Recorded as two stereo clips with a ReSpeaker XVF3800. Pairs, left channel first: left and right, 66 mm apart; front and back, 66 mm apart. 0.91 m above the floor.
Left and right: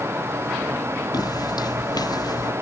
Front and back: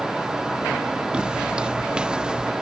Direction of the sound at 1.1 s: 105° left.